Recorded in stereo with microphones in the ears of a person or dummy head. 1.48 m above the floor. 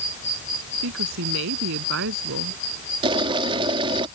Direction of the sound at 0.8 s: 70° right (ahead or behind).